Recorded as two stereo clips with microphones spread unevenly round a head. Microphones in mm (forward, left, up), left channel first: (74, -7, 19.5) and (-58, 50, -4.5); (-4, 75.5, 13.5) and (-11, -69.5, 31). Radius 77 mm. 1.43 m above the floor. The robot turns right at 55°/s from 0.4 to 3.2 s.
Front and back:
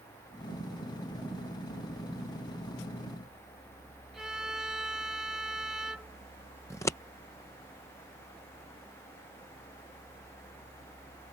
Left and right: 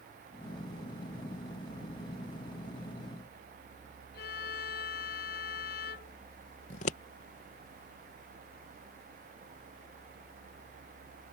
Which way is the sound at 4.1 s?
70° left.